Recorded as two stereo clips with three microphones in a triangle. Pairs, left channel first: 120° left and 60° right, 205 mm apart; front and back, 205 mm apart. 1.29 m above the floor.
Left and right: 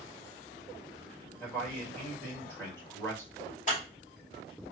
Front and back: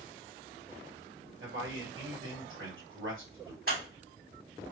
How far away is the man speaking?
About 1.6 m.